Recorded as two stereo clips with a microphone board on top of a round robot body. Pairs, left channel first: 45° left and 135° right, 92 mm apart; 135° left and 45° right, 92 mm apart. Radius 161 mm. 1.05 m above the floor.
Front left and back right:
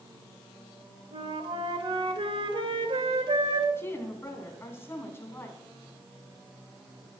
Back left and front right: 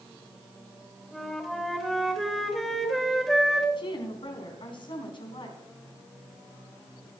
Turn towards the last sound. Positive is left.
turn(degrees=110)